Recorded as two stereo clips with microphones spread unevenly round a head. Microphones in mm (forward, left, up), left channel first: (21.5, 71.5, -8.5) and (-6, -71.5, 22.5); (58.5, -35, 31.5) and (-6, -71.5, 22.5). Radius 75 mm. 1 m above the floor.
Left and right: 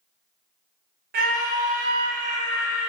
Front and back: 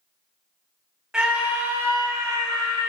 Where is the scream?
80° right, 0.9 m; by 2.9 s 155° right, 0.9 m.